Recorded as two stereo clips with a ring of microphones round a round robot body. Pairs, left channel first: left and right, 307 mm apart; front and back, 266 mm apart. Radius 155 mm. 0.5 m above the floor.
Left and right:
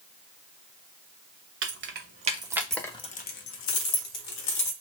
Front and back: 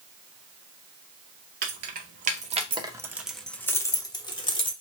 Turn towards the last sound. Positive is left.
turn(degrees=70)